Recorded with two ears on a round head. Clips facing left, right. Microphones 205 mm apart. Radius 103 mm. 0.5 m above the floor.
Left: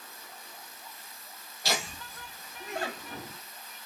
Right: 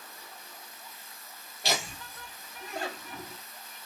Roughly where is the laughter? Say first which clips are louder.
Right 1 dB; right.